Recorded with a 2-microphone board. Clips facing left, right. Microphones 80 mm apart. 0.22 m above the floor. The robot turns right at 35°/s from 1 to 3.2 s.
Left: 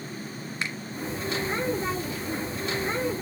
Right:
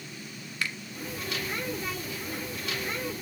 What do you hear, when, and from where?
0.6 s a finger snap: 25° left (ahead or behind), 1.9 m